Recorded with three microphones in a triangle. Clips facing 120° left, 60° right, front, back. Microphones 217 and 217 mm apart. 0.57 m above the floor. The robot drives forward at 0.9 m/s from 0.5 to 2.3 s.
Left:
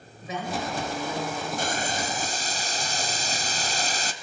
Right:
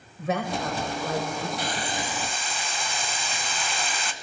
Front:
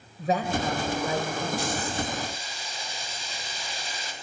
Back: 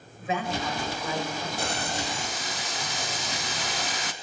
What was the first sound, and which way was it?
A woman speaking, 45° right.